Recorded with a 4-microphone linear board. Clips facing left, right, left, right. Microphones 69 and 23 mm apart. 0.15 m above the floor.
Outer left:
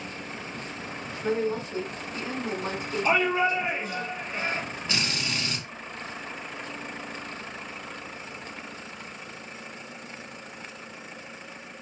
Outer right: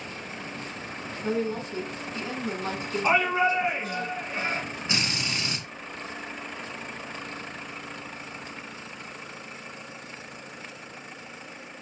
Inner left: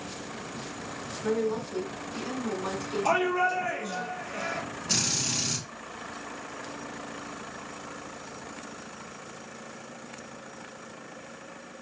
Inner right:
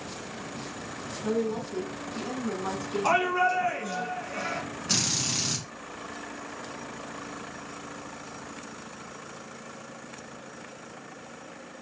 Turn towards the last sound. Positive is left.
turn(degrees=-20)  # may be behind; listen again after turning